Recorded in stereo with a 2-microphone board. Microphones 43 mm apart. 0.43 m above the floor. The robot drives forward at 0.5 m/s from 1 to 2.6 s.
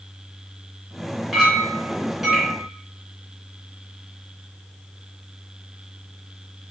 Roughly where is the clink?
Centre.